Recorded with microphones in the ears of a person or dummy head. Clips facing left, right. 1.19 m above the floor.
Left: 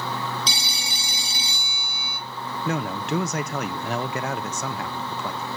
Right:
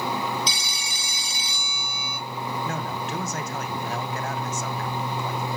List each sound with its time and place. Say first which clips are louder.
0.5 s a phone ringing: left 1 dB; 30° left (ahead or behind), 1.0 m
2.6 s a man speaking: left 4 dB; 60° left (ahead or behind), 0.9 m